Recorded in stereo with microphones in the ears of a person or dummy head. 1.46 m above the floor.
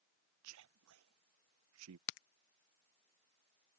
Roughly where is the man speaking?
Right.